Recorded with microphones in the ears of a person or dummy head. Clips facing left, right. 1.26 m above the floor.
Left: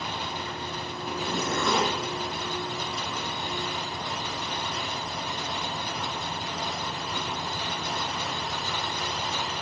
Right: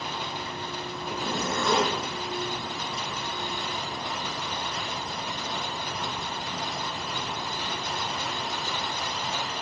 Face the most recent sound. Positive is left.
turn(degrees=0)  # may be behind; listen again after turning